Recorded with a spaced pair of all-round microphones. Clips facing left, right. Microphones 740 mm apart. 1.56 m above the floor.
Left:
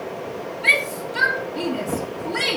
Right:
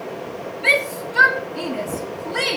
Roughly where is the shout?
Centre.